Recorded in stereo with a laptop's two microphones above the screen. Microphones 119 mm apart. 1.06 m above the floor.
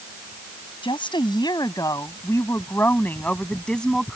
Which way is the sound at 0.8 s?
45° left (ahead or behind).